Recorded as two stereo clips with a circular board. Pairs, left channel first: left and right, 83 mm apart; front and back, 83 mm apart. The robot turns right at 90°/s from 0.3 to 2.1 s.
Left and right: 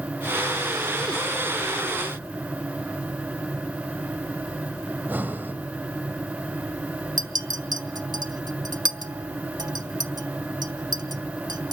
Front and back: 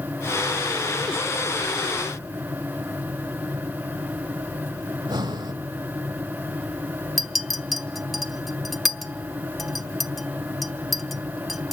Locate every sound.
4.9 s breathing: 155° right, 1.2 m
7.2 s a clink: 90° right, 0.9 m